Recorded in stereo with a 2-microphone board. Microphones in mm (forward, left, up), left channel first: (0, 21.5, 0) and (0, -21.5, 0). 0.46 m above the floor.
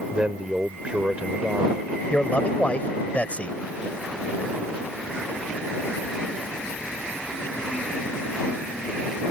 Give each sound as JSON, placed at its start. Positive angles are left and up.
{"t": 0.1, "sound": "a man speaking", "side_deg": -25}
{"t": 2.1, "sound": "a man speaking", "side_deg": 35}